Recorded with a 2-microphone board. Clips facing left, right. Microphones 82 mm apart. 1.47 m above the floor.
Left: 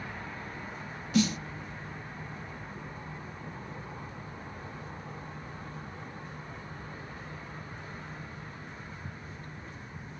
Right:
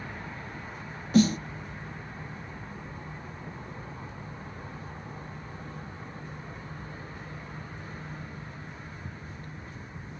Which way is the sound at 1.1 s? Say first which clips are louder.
Right 5 dB; 40° right (ahead or behind).